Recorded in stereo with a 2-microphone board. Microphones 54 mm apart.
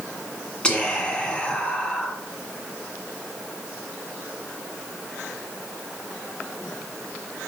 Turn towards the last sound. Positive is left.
turn(degrees=20)  # may be behind; listen again after turning